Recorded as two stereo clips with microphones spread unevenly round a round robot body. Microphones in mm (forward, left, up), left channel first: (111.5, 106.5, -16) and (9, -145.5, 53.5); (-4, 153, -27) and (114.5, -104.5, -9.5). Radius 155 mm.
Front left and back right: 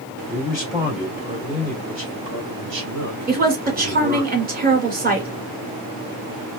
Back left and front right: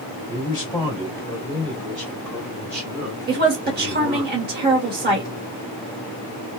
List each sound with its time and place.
0.3 s a man speaking: 90° left, 1.4 m; by 4.3 s 135° right, 2 m
3.3 s a woman speaking: 60° right, 1.3 m